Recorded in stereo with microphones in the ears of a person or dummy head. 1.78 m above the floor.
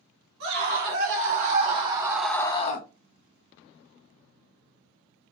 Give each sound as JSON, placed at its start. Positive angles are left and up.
{"t": 0.4, "sound": "a scream", "side_deg": -60, "distance_m": 2.0}